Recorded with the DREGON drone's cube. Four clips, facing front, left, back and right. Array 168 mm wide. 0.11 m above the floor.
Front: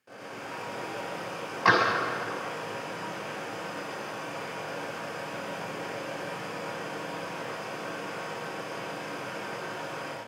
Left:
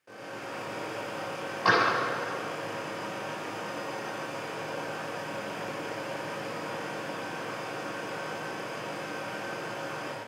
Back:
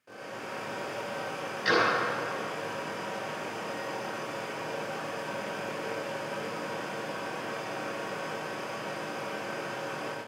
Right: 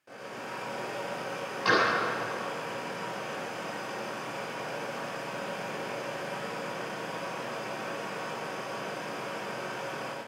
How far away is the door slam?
About 5.5 m.